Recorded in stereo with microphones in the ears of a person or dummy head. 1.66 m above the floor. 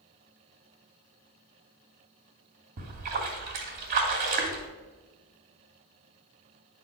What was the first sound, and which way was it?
A splash, 45° right (ahead or behind).